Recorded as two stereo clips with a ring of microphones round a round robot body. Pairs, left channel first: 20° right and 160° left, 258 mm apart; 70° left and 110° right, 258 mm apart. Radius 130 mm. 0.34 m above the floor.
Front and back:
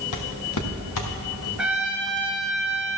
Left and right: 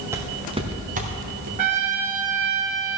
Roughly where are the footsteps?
Ahead right.